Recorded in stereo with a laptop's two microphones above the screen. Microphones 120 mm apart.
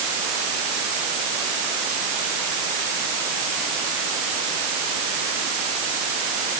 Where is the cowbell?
No cowbell in this recording.